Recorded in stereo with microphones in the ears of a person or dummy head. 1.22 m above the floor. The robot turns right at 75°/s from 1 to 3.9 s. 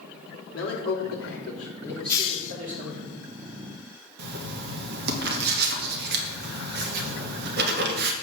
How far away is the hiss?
About 1.1 m.